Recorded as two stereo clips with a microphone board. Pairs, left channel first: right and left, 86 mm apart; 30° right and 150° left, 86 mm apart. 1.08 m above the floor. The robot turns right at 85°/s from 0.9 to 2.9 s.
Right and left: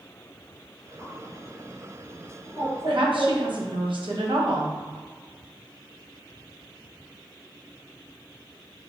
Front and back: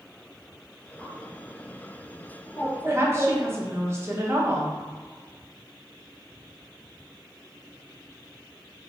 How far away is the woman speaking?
About 0.8 m.